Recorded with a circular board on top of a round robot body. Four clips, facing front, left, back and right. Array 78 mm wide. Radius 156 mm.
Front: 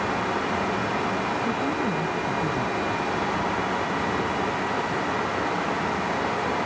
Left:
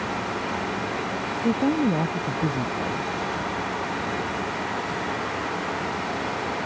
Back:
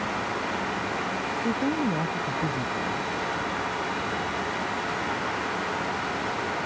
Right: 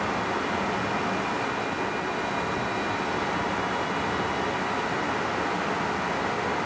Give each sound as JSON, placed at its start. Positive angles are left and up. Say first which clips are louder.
{"t": 1.4, "sound": "a woman speaking", "louder": "left 7 dB, even", "azimuth_deg": 100}